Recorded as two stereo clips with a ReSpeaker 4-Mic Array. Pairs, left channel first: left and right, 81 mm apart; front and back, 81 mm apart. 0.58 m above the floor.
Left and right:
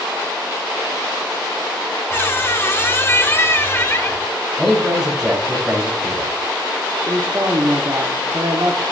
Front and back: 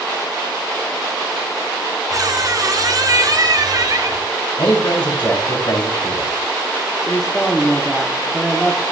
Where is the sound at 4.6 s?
5° right, 4.5 m.